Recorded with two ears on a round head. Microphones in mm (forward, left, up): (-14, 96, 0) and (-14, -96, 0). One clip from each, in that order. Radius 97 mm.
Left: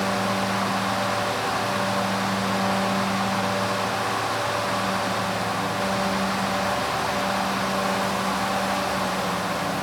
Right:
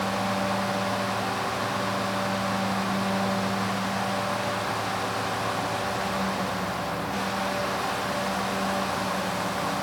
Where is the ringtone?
I don't hear a ringtone.